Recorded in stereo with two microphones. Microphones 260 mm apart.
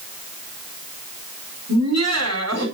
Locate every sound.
1.7 s laughter: 75° right (ahead or behind), 4 m